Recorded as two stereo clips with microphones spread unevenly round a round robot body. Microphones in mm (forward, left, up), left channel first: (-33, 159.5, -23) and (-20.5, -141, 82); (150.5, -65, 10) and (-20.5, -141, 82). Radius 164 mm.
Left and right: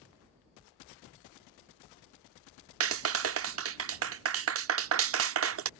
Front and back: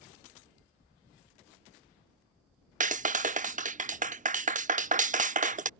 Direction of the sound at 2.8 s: 110° right.